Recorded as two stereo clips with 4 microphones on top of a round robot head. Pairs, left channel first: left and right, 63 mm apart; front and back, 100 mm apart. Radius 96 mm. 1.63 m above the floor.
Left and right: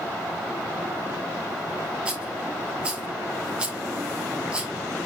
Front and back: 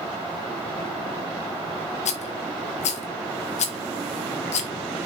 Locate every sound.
2.0 s a rattle: 10° right, 1.2 m